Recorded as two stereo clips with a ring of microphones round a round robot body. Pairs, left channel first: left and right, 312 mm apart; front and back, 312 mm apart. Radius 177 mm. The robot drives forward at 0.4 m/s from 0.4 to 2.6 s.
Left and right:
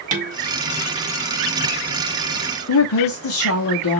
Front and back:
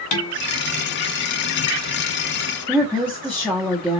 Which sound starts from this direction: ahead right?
Dishes clattering, at 0.1 s.